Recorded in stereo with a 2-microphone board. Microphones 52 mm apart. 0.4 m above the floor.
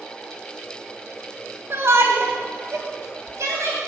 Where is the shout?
50° right (ahead or behind), 2 m; by 3.8 s 65° right (ahead or behind), 2.5 m.